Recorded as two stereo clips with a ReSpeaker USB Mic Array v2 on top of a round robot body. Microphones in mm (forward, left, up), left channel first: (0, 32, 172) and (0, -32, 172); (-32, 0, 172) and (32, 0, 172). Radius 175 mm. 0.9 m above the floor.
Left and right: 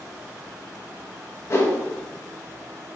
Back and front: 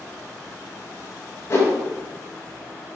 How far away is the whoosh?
About 1.8 m.